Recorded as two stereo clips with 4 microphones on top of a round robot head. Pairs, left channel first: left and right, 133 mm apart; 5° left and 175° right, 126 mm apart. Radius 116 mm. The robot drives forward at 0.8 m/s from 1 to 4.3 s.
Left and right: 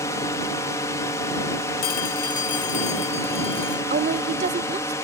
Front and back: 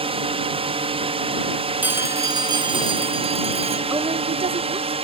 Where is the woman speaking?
105° right; by 4.9 s 130° right.